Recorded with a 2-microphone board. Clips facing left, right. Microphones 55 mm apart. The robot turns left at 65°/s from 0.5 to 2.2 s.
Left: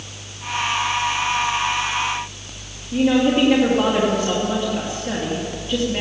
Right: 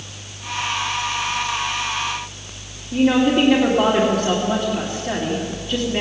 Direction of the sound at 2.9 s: Centre (ahead or behind).